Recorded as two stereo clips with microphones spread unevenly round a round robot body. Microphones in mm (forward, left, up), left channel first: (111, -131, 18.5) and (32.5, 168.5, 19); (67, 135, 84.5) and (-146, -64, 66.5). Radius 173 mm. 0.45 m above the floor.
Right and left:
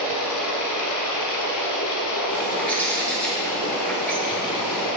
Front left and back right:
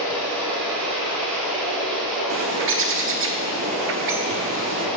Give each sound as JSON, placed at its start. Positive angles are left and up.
{"t": 0.0, "sound": "running water", "azimuth_deg": -45, "distance_m": 1.1}
{"t": 2.3, "sound": "a bird", "azimuth_deg": -160, "distance_m": 0.7}